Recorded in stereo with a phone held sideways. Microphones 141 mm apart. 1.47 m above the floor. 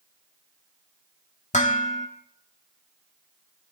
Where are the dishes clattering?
55° left (ahead or behind), 1.8 m.